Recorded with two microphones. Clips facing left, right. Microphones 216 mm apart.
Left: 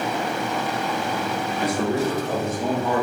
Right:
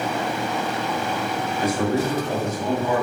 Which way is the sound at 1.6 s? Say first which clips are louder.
Right 1 dB; 60° left (ahead or behind).